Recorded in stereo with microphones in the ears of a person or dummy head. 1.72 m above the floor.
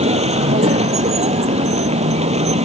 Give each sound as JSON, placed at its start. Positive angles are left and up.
{"t": 0.0, "sound": "a vehicle", "side_deg": -30}